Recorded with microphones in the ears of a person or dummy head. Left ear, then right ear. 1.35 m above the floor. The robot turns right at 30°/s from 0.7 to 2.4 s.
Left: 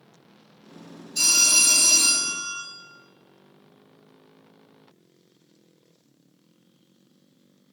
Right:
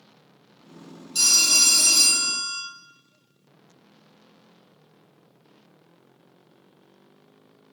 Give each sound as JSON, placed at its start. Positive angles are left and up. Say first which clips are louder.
{"t": 1.1, "sound": "a phone ringing", "louder": "right 1 dB", "azimuth_deg": -70, "distance_m": 1.6}